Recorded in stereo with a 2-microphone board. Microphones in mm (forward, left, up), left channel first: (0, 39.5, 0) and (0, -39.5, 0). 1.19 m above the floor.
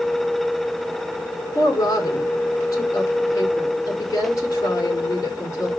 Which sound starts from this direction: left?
A woman speaking, at 1.6 s.